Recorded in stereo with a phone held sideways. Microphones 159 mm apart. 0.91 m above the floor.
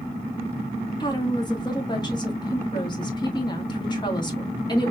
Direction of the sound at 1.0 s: 25° left (ahead or behind).